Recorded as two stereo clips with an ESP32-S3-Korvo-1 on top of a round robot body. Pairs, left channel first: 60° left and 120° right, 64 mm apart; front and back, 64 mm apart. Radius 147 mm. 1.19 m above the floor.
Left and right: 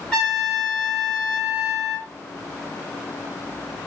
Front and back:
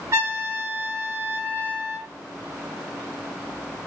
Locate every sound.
0.1 s a trumpet: 130° left, 1.1 m